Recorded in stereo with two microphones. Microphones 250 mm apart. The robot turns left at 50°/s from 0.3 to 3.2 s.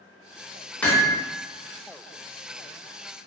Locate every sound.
0.8 s hammering: 5° left (ahead or behind), 0.6 m; by 1.2 s 20° left (ahead or behind), 0.6 m